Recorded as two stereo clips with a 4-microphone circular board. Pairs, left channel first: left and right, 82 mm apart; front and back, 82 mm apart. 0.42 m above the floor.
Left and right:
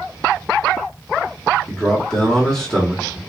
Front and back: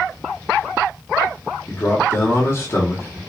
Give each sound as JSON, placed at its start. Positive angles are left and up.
{"t": 1.7, "sound": "a man speaking", "azimuth_deg": 15, "distance_m": 0.9}